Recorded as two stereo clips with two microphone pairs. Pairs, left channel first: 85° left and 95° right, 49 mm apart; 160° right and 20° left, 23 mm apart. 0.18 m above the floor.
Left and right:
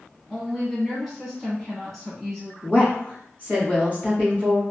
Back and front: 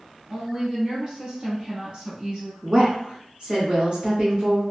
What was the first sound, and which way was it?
A woman speaking, 10° left.